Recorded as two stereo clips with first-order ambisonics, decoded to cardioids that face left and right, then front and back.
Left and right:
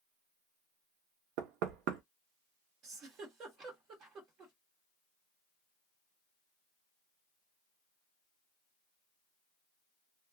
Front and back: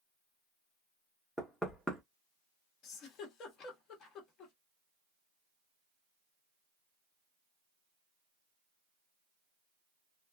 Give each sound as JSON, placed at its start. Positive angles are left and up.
{"t": 1.4, "sound": "knocking", "azimuth_deg": -95, "distance_m": 0.8}
{"t": 2.8, "sound": "a giggle", "azimuth_deg": -45, "distance_m": 1.1}